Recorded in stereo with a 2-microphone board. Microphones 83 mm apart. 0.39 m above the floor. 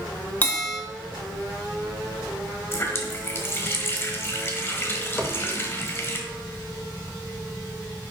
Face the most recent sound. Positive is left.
turn(degrees=5)  # may be behind; listen again after turning